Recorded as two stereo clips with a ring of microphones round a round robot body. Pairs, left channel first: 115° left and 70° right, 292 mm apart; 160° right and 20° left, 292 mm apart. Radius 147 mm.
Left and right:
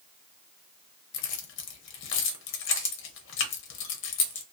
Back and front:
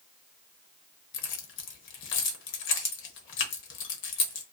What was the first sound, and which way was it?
Keys jangling, 155° left.